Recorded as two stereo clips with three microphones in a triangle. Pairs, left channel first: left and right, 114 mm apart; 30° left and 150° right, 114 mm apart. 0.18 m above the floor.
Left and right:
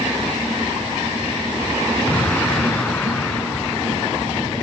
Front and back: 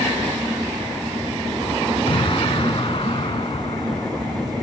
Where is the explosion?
15° left.